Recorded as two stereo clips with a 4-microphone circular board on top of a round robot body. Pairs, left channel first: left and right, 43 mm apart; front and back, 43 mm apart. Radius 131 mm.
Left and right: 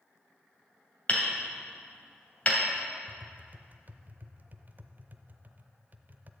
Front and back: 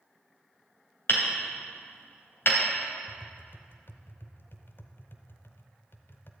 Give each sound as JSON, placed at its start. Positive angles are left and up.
{"t": 1.1, "sound": "hammering", "azimuth_deg": 30, "distance_m": 2.5}
{"t": 3.1, "sound": "tapping", "azimuth_deg": -35, "distance_m": 0.5}